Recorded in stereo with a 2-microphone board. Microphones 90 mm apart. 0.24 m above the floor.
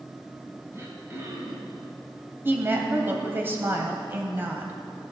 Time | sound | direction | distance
0.7 | throat clearing | 30° right (ahead or behind) | 1.7 m
2.5 | a woman speaking | 25° right (ahead or behind) | 1.2 m